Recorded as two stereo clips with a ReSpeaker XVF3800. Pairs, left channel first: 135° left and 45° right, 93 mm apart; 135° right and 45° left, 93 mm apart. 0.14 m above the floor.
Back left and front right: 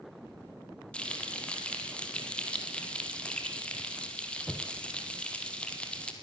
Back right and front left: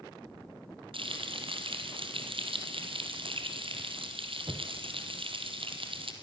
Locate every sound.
0.9 s frying: 60° left, 3 m